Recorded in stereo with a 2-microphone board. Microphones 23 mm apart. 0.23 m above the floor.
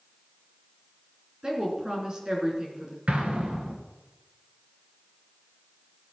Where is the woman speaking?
30° right (ahead or behind), 3.5 m.